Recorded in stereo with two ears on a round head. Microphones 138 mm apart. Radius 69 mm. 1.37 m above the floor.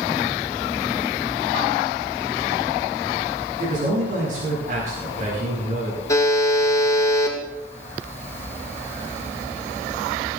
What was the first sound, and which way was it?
A man speaking, 55° right (ahead or behind).